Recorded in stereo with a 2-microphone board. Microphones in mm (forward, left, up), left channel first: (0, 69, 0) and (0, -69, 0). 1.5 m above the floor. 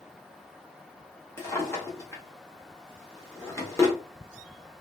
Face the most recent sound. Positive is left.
turn(degrees=20)  # may be behind; listen again after turning